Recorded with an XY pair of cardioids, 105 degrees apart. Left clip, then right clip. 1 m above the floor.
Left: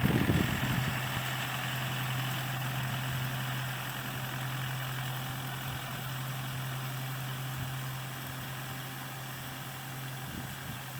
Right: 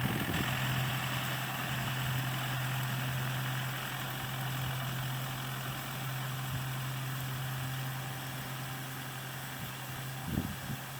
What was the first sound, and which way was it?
Only background noise.